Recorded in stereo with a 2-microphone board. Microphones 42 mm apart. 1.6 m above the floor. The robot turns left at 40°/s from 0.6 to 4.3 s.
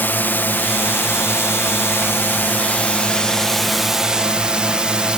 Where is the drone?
125° left; by 5.2 s 25° right.